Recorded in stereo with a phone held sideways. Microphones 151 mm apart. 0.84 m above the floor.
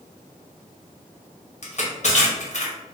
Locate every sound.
1.6 s crushing: 50° left (ahead or behind), 1.0 m